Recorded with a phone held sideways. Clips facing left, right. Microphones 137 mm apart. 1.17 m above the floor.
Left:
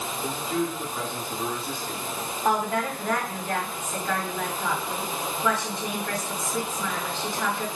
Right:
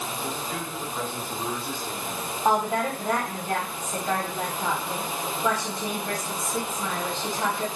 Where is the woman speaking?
15° right (ahead or behind), 1.9 m.